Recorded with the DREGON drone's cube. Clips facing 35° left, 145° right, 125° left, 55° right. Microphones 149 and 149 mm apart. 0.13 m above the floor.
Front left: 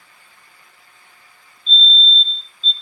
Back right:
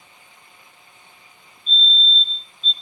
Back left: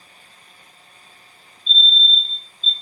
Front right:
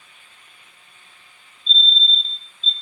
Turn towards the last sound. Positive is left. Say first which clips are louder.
# front left 3 dB, back left 1 dB
turn(degrees=-150)